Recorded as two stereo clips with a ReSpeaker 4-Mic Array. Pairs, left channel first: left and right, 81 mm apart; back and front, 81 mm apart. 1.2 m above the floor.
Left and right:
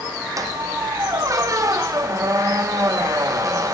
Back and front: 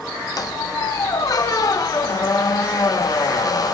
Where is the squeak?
135° right, 0.6 m.